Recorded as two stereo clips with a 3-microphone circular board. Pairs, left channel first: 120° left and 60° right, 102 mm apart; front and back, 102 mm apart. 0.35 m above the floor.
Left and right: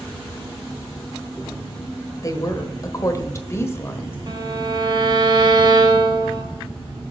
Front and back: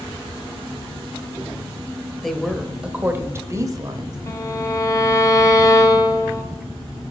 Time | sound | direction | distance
2.2 | a woman speaking | 85° left | 1.1 m
4.3 | a violin | 50° right | 1.9 m